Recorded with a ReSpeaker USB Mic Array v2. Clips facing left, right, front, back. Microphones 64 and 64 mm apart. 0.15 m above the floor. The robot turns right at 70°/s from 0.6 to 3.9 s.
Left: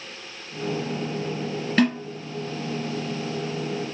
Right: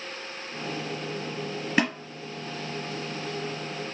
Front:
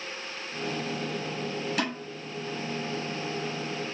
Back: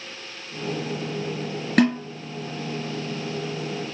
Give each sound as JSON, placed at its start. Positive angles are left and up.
{"t": 1.8, "sound": "a snare drum", "azimuth_deg": -170, "distance_m": 1.7}